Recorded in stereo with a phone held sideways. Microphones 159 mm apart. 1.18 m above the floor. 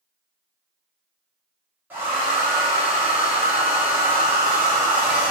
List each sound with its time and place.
1.9 s a hair dryer: 10° right (ahead or behind), 1.0 m